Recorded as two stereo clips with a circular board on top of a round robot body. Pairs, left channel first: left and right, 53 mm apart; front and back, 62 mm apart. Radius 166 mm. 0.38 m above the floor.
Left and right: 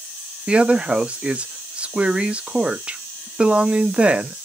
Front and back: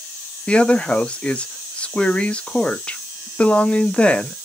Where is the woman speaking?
50° right, 1.0 m.